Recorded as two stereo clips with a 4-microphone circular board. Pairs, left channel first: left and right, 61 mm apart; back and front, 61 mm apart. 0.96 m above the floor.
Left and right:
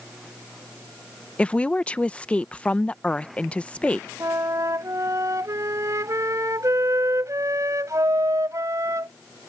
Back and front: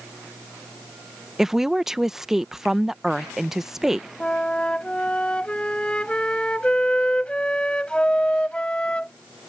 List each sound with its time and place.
1.4 s a woman speaking: 65° left
4.2 s a flute: 110° right